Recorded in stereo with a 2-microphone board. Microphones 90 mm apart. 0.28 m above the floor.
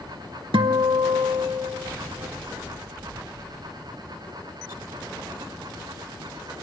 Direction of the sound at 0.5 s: 80° right.